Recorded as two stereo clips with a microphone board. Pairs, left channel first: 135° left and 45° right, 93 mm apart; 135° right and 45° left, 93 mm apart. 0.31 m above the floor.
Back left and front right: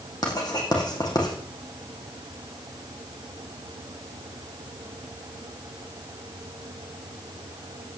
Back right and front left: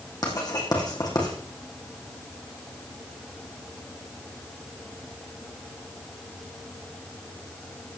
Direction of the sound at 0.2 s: Straight behind.